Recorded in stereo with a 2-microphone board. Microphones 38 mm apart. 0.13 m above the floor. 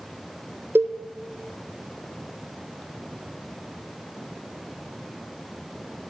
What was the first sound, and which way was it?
A cowbell, 75° right (ahead or behind).